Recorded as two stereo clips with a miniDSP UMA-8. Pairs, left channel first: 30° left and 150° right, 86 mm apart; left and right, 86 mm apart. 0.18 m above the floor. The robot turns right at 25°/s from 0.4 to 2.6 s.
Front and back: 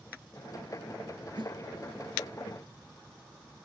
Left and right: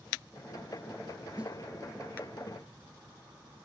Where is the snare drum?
165° right, 1.6 m; by 1.6 s 160° right, 1.6 m.